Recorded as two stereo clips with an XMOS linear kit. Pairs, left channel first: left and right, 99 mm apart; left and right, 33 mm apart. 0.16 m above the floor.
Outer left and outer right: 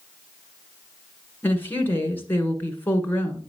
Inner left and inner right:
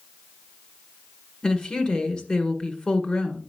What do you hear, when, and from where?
1.4 s a woman speaking: 20° left (ahead or behind), 1.6 m